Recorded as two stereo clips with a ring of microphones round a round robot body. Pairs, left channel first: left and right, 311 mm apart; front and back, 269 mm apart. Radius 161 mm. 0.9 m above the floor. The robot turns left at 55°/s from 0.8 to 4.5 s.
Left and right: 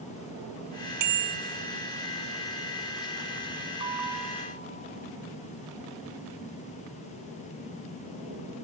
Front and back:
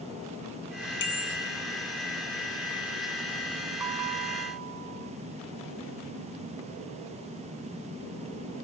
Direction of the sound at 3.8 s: 165° right.